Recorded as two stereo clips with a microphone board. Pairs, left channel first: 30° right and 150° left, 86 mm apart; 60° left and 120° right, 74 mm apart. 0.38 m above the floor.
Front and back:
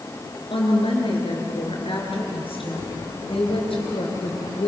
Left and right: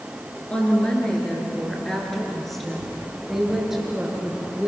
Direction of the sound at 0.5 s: 15° right.